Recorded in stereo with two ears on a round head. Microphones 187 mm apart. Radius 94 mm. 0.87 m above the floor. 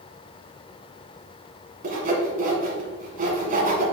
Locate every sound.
1.8 s sawing: 40° right (ahead or behind), 1.9 m